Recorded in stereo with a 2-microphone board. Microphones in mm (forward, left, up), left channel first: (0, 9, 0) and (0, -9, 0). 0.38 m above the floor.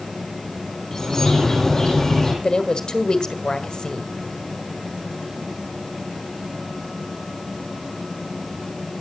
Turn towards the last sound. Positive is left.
turn(degrees=45)  # may be behind; listen again after turning